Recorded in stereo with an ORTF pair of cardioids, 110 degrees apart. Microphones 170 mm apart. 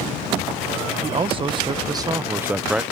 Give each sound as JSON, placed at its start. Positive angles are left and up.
{"t": 1.0, "sound": "a man speaking", "azimuth_deg": -35}